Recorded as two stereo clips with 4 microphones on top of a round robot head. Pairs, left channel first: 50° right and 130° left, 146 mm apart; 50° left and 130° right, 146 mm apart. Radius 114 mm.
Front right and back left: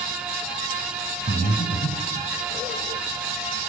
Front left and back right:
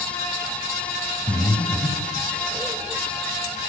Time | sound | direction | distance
1.3 | breathing | 30° right | 3.5 m